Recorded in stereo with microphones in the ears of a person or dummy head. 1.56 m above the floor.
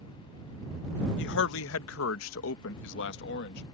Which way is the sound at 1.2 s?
65° left (ahead or behind).